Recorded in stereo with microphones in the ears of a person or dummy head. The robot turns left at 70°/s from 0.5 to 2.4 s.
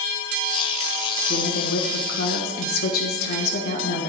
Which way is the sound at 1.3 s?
140° left.